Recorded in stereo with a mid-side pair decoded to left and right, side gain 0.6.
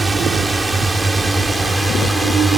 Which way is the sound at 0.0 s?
20° right.